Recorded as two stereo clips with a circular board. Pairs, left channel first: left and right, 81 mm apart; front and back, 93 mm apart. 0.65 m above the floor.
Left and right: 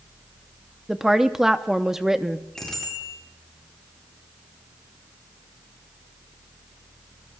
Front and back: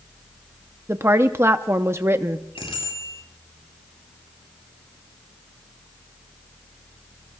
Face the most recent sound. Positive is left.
turn(degrees=5)